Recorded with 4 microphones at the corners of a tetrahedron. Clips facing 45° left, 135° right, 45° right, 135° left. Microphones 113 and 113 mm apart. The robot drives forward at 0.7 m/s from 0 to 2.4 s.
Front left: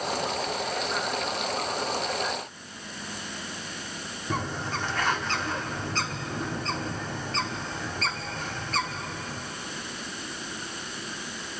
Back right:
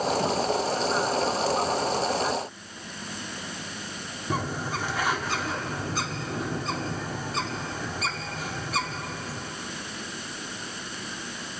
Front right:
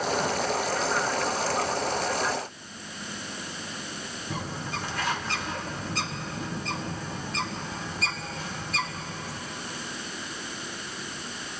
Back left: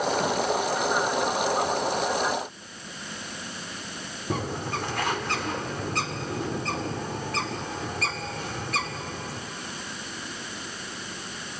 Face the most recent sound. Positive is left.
turn(degrees=145)